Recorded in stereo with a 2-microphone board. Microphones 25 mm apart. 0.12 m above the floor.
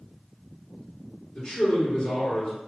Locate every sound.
1.4 s a man speaking: 35° left (ahead or behind), 1.9 m